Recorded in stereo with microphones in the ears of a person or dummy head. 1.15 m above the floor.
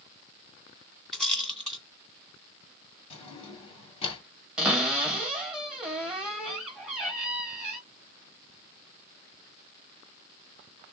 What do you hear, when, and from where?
1.1 s a rattle: centre (ahead or behind), 2.5 m
3.1 s a drawer: 35° left (ahead or behind), 2 m
4.6 s a cupboard door: 5° right (ahead or behind), 1.9 m